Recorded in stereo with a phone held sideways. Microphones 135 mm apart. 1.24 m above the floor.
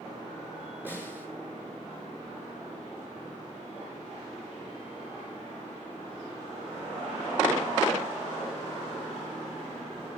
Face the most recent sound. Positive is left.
turn(degrees=-15)  # may be behind; listen again after turning